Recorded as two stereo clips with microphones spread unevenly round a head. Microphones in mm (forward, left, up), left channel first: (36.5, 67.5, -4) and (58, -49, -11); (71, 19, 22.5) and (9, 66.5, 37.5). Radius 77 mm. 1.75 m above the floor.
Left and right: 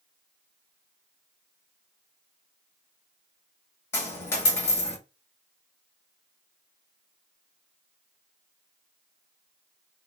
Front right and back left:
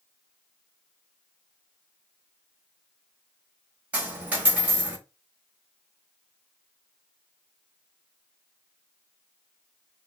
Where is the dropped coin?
125° left, 1.2 m.